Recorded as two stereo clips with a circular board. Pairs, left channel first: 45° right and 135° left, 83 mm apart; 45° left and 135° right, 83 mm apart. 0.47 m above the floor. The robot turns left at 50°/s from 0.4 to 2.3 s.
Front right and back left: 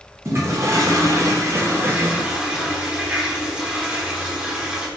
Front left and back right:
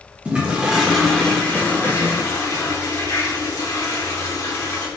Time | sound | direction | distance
0.2 | a toilet flushing | 160° left | 0.7 m